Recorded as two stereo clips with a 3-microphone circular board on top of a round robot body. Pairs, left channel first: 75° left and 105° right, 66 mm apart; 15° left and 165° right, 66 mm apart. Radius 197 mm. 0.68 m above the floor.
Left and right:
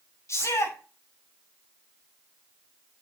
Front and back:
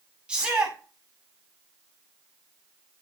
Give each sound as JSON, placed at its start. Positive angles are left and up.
{"t": 0.3, "sound": "a shout", "azimuth_deg": 120, "distance_m": 8.0}